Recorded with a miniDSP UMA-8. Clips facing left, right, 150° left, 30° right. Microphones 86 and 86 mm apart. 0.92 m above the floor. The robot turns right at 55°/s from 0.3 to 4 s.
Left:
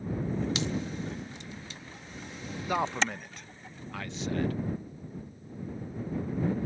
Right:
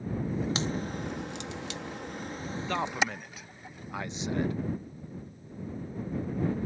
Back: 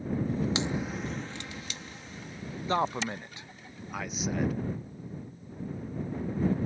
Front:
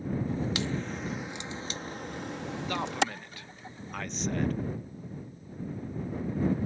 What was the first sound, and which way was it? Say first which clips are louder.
A crack: even, back 1 dB; 145° right.